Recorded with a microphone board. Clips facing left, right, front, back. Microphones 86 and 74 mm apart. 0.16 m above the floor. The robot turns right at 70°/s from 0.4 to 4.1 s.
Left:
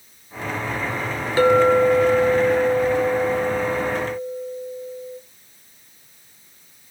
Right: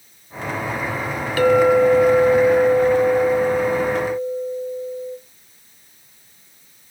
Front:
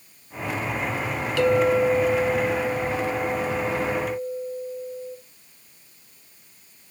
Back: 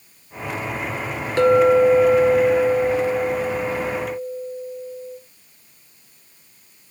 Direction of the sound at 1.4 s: 140° left.